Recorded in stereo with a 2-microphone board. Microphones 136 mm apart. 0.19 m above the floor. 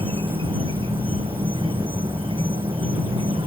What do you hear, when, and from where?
0.0 s an insect: 40° right (ahead or behind)